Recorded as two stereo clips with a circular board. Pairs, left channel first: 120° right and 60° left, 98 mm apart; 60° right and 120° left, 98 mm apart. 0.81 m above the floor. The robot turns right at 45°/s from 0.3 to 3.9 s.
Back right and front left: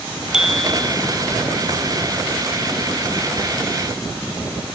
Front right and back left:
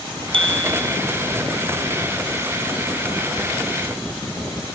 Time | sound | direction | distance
0.3 | a bicycle bell | 145° left | ?